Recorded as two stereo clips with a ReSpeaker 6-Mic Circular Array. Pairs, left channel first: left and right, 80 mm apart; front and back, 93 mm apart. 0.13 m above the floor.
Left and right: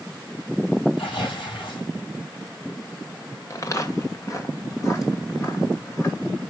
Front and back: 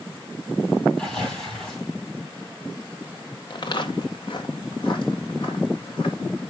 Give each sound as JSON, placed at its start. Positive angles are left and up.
{"t": 1.0, "sound": "tearing paper", "azimuth_deg": 85, "distance_m": 7.0}
{"t": 3.5, "sound": "footsteps", "azimuth_deg": 40, "distance_m": 1.4}